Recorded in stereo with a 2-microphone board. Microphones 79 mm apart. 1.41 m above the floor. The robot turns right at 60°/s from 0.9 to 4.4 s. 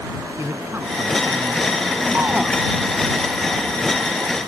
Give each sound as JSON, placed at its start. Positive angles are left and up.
{"t": 0.4, "sound": "a man speaking", "azimuth_deg": -145}
{"t": 2.1, "sound": "a shout", "side_deg": -25}